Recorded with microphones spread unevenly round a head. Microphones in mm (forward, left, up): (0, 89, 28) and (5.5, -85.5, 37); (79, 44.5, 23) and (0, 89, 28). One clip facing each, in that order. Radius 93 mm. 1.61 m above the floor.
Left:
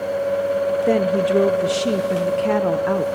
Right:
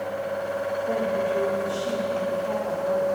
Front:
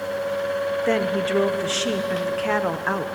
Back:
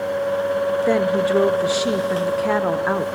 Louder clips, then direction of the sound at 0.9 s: Left 6 dB, back 4 dB; 75° left.